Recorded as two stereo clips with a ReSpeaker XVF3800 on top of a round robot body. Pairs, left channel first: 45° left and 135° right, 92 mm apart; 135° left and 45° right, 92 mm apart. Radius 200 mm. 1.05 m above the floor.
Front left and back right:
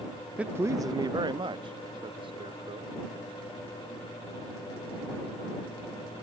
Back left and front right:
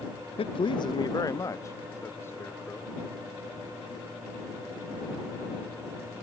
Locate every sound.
0.4 s a man speaking: 145° left; by 3.0 s 155° right